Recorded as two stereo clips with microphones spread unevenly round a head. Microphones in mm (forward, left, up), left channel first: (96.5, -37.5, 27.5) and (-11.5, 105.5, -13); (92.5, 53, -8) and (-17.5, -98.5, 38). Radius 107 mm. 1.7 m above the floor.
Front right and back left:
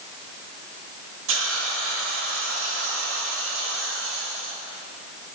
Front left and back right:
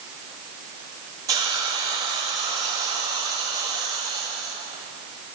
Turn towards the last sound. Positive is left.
turn(degrees=165)